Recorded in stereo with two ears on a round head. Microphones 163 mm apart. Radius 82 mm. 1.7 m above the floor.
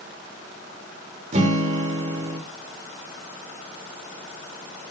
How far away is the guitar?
About 3 m.